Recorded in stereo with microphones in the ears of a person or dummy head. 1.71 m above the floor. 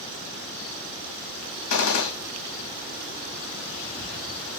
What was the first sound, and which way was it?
A gunshot, 80° left.